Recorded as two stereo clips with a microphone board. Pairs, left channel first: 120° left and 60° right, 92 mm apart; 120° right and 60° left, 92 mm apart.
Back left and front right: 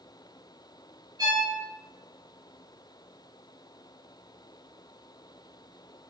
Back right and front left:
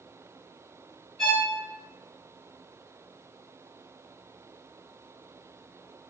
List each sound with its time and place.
1.2 s a violin: 35° right, 1.2 m